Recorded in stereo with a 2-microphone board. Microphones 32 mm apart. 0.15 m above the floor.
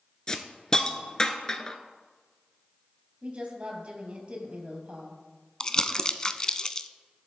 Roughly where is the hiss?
Left.